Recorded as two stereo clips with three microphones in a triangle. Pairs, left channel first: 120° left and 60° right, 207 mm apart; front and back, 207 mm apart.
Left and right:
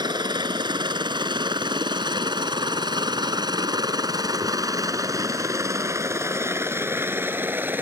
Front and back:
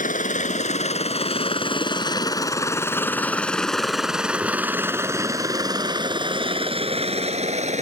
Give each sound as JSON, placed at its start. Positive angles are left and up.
{"t": 0.0, "sound": "a helicopter", "azimuth_deg": -5}